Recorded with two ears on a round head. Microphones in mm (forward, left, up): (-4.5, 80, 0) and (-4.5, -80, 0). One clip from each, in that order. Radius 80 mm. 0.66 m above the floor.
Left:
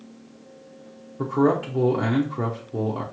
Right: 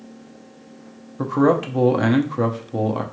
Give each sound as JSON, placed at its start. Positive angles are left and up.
{"t": 1.2, "sound": "a man speaking", "side_deg": -25, "distance_m": 0.7}